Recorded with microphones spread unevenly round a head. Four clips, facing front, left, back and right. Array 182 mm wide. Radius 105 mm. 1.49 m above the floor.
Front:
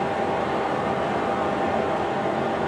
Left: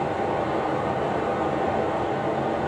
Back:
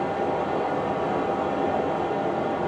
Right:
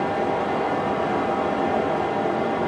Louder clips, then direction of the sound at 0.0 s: Right 2 dB, front 1 dB; 85° right.